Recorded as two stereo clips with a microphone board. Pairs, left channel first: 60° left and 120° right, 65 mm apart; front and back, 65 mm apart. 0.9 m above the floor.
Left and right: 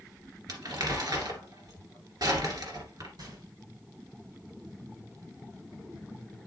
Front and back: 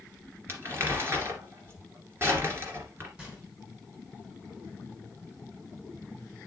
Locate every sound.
0.5 s crumpling: 130° right, 2 m
3.2 s a gunshot: 110° right, 3 m